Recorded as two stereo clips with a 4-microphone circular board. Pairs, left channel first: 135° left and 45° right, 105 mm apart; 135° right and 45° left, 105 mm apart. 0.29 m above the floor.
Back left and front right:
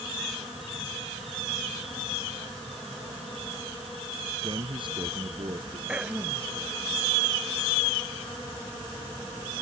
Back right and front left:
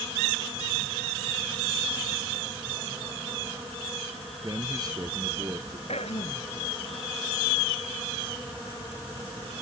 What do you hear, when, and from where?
4.4 s a man speaking: 5° right
5.9 s throat clearing: 125° right